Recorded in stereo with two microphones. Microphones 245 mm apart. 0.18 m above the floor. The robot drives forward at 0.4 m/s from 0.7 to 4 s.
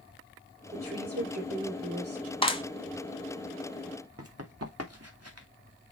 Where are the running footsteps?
75° right (ahead or behind), 2.5 m; by 5.5 s 90° right, 2.5 m.